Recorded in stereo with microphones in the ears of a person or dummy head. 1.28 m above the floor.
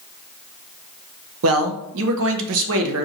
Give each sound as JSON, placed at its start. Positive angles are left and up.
{"t": 1.4, "sound": "a man speaking", "side_deg": -70, "distance_m": 0.6}